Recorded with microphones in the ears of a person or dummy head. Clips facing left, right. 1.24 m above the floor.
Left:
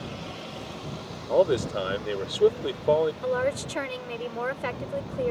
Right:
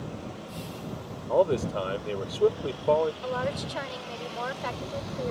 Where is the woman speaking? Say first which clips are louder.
Left 4 dB; 40° left (ahead or behind).